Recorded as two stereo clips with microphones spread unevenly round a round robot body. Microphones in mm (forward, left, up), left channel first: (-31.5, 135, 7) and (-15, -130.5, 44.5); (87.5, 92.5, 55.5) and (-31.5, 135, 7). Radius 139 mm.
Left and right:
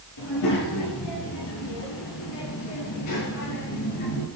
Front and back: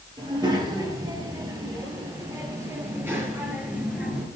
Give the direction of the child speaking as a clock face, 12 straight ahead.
9 o'clock.